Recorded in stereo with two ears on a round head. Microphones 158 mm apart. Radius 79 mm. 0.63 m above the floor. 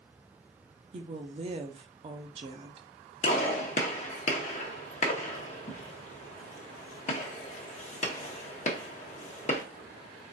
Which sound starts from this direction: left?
A gunshot, at 3.2 s.